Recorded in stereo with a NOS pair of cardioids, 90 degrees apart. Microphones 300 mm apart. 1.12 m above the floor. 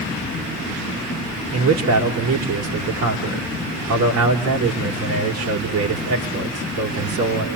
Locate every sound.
1.5 s a man speaking: 60° right, 3.5 m